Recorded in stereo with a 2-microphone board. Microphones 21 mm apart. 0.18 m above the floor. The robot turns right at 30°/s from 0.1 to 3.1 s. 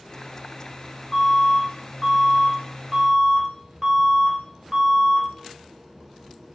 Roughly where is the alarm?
Left.